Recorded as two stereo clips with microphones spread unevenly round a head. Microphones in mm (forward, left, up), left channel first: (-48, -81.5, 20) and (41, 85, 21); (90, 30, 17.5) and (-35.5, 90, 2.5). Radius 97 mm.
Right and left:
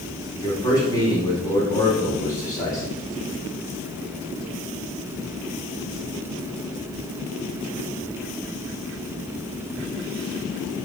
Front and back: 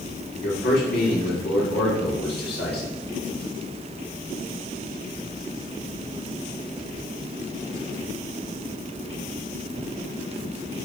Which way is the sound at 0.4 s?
45° right.